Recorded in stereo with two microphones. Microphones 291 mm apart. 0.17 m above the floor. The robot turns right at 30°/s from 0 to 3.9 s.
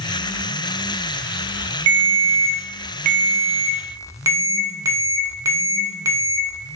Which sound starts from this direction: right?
A ringtone, at 1.9 s.